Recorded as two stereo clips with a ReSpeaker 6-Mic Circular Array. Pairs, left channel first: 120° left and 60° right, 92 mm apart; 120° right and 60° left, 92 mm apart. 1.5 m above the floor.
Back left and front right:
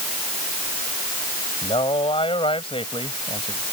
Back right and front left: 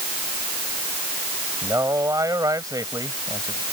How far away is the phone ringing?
No phone ringing in this recording.